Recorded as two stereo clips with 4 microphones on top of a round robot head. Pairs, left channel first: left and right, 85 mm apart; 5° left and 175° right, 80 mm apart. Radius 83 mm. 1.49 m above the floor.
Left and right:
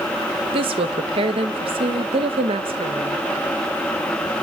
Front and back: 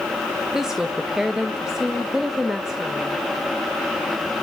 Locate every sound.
0.5 s a woman speaking: 90° right, 1.6 m